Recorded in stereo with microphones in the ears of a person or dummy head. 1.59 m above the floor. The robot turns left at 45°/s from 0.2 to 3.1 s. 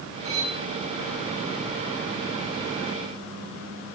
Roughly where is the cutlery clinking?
Right.